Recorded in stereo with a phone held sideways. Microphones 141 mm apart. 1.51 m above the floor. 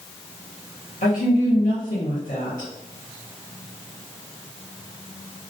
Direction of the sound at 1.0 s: 70° left (ahead or behind).